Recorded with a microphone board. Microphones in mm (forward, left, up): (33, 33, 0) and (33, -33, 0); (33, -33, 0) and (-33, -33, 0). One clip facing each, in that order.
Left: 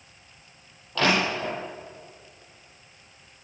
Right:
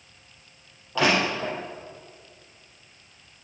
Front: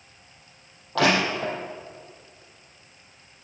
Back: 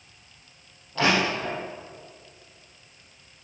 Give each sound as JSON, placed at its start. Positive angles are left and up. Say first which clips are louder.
{"t": 0.9, "sound": "crushing", "louder": "right 1 dB, front 2 dB", "azimuth_deg": -15, "distance_m": 7.0}